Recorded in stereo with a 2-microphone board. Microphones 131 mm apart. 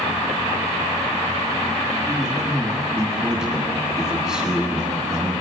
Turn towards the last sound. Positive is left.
turn(degrees=-5)  # may be behind; listen again after turning